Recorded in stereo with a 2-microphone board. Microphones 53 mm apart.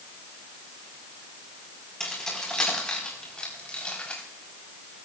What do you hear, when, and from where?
2.0 s keys jangling: 10° left (ahead or behind), 5 m; by 4.2 s 20° left (ahead or behind), 4 m